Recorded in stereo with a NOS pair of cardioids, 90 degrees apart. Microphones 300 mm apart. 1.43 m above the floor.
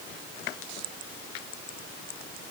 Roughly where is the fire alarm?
No fire alarm in this recording.